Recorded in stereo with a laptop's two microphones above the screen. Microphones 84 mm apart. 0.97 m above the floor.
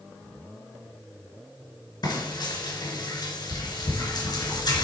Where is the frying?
60° left (ahead or behind), 2.5 m.